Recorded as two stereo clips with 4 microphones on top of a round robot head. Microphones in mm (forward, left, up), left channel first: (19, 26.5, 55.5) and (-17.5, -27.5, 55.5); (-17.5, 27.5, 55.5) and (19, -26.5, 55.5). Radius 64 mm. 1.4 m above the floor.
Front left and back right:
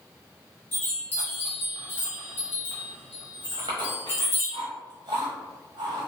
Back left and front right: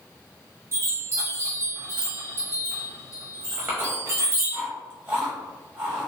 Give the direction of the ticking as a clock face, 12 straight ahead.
No ticking in this recording.